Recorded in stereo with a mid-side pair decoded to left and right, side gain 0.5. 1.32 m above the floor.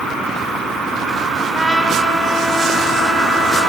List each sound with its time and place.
1.5 s a trumpet: straight ahead, 5 m